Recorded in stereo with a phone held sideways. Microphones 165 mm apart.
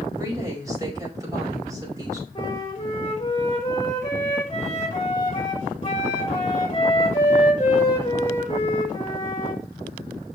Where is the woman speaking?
20° right (ahead or behind), 5.5 m.